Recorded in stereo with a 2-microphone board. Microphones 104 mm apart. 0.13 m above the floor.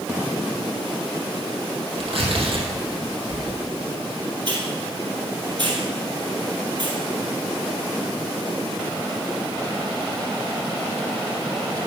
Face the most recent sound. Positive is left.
turn(degrees=-50)  # may be behind; listen again after turning